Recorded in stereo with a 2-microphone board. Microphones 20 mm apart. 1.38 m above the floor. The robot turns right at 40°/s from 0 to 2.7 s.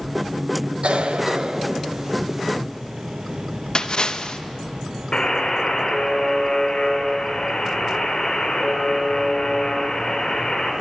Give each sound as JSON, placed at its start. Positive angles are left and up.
{"t": 0.8, "sound": "a cough", "side_deg": -75, "distance_m": 1.4}
{"t": 3.8, "sound": "a splash", "side_deg": 40, "distance_m": 0.9}
{"t": 5.1, "sound": "a buzzer", "side_deg": 50, "distance_m": 3.5}